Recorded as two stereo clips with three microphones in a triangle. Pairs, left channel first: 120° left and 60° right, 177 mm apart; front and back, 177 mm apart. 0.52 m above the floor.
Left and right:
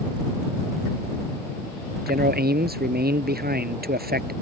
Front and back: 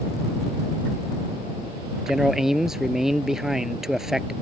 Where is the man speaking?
90° right.